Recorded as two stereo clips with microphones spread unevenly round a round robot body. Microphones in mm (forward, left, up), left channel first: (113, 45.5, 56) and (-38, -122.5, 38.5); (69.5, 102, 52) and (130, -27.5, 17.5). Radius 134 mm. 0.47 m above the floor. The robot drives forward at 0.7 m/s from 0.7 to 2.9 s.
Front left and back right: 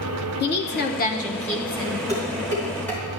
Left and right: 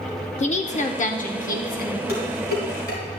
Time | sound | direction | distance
0.4 | a woman speaking | 80° left | 1.4 m
2.1 | dishes clattering | 125° left | 3.5 m